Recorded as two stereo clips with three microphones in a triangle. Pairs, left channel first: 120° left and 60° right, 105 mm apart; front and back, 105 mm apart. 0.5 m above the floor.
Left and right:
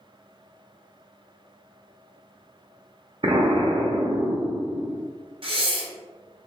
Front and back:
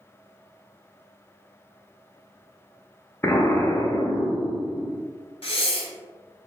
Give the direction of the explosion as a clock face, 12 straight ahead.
2 o'clock.